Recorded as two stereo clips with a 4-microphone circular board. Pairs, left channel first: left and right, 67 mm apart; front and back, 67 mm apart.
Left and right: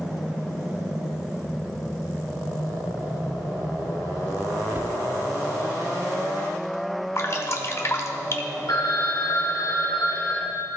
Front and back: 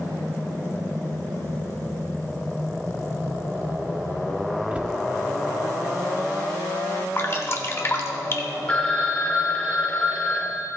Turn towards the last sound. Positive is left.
turn(degrees=70)